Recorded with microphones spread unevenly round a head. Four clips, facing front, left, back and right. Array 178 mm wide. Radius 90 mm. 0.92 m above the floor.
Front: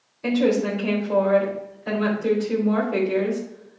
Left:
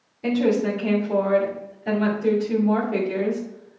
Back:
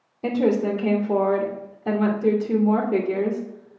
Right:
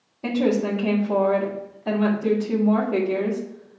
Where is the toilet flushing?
No toilet flushing in this recording.